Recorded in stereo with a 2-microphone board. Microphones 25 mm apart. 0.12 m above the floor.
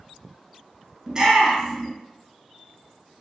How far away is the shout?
About 1.2 m.